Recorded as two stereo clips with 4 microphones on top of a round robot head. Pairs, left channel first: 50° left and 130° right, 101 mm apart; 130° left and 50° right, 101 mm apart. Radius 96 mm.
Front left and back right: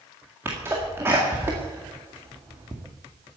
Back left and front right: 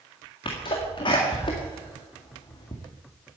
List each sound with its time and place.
0.5 s a sneeze: 165° left, 1.9 m